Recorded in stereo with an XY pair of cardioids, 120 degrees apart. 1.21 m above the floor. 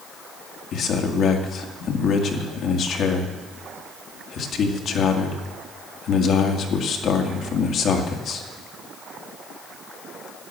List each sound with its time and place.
0.7 s a man speaking: 55° left, 2 m